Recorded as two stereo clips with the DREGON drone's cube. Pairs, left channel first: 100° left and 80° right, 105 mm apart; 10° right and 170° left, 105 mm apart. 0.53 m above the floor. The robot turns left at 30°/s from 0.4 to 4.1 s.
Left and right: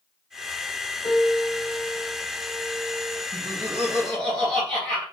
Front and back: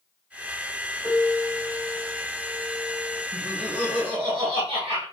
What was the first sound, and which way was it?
A piano, 55° left.